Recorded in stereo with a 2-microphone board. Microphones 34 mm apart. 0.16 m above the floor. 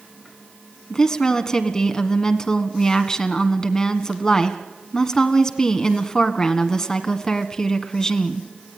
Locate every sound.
0.9 s a woman speaking: 20° left (ahead or behind), 1.6 m